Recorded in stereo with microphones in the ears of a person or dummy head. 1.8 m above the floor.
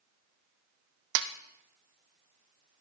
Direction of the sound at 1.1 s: 65° right (ahead or behind).